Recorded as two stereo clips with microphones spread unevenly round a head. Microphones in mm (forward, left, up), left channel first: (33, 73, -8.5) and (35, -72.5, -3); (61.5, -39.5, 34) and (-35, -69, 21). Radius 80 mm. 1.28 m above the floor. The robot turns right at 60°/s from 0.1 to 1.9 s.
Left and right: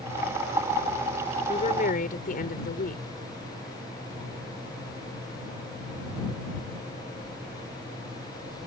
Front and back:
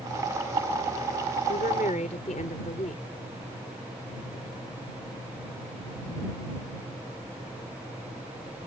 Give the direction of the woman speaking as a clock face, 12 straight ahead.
11 o'clock.